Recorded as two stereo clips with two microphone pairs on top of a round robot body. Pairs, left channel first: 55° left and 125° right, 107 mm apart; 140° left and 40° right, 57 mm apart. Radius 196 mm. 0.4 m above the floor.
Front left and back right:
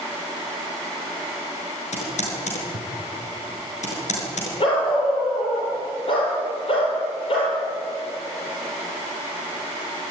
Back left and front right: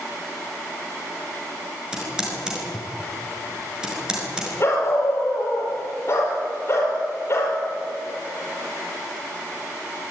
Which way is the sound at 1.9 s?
40° left.